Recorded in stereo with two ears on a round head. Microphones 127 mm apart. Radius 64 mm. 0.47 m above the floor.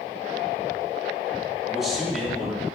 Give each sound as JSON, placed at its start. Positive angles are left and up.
{"t": 1.7, "sound": "a man speaking", "side_deg": -5, "distance_m": 4.0}